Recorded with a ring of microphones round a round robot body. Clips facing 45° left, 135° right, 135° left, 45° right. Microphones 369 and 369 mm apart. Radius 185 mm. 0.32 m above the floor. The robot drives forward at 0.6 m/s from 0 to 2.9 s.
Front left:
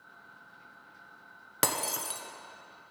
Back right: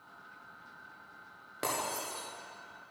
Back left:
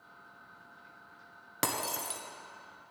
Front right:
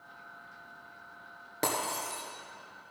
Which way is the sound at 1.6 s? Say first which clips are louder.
Front left 3 dB, front right 3 dB; 75° left.